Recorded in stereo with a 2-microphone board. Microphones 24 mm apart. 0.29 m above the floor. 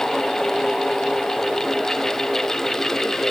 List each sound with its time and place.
Only background noise.